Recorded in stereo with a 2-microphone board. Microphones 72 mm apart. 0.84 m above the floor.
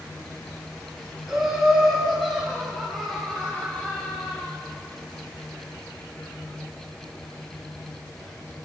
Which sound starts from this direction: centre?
Laughter, at 1.3 s.